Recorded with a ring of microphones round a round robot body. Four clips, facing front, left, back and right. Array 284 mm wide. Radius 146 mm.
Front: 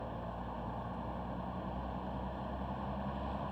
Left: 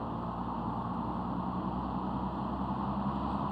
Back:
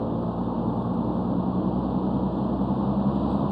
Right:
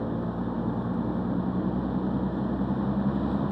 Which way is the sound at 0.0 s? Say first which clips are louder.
Right 6 dB, back 15 dB; 155° right.